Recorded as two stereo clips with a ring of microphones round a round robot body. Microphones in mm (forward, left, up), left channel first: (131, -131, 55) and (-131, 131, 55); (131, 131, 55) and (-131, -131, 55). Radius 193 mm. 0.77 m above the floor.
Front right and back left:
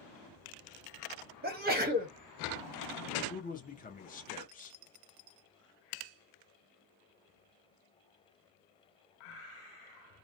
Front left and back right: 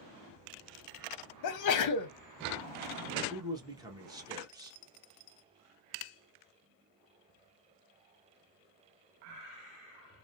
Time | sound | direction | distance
1.4 | a sneeze | 75° left | 0.6 m
3.3 | a man speaking | 70° right | 0.7 m